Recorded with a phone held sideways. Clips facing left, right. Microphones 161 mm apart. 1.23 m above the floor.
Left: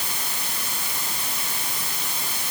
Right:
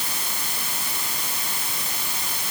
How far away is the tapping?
I don't hear tapping.